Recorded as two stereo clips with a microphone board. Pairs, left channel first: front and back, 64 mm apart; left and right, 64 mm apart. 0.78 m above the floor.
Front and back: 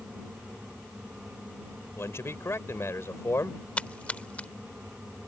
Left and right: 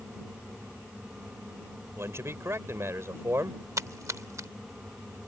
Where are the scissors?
I don't hear scissors.